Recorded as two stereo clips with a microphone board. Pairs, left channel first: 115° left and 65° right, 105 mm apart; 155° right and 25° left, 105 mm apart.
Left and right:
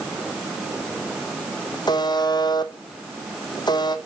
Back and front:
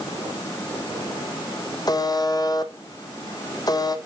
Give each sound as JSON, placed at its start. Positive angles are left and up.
{"t": 1.9, "sound": "a buzzer", "azimuth_deg": 155, "distance_m": 0.9}